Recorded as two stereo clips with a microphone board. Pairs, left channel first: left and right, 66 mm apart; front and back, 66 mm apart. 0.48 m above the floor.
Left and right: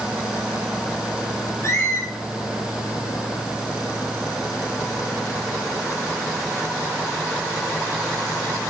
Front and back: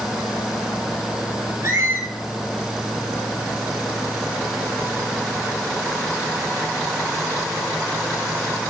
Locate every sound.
1.6 s a squeak: 135° left, 3.5 m